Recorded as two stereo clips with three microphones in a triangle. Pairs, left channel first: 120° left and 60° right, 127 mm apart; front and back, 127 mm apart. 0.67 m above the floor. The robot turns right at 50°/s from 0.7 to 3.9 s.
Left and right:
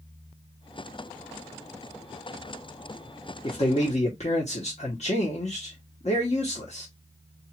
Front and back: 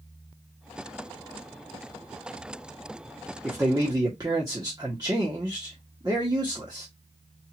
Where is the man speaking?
105° left, 1.2 m; by 6.9 s 125° left, 1.2 m.